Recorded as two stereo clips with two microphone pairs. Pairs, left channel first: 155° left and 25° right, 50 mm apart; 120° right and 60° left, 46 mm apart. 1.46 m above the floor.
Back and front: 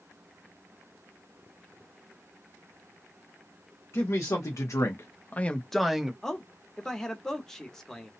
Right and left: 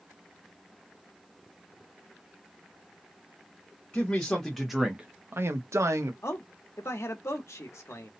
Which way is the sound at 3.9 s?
170° left.